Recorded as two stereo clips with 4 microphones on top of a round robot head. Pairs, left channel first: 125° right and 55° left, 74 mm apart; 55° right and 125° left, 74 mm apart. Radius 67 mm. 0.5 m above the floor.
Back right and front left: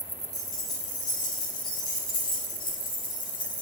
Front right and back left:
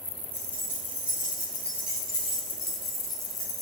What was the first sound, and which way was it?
Keys jangling, 170° right.